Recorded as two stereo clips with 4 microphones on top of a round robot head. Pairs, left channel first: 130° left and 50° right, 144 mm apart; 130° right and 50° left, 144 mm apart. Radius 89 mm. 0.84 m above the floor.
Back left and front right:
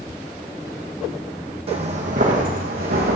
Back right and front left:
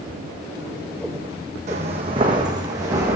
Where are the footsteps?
5° left, 2.5 m; by 3.2 s 25° right, 3.5 m.